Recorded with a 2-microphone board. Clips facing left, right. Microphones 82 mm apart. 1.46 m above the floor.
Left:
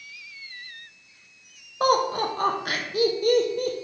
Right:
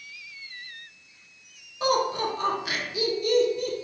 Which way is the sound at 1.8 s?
45° left (ahead or behind).